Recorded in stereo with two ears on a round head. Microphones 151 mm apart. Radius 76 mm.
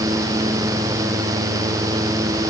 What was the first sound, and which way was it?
Only background noise.